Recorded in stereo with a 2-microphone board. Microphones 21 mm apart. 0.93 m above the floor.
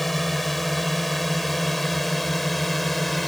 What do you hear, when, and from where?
0.0 s a drone: 5° left (ahead or behind)